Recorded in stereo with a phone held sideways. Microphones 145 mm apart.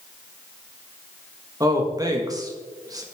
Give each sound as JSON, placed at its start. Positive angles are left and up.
{"t": 1.6, "sound": "a man speaking", "side_deg": -25, "distance_m": 1.6}